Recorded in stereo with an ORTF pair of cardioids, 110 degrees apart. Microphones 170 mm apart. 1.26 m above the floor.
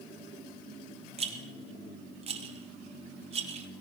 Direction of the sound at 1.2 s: 40° right.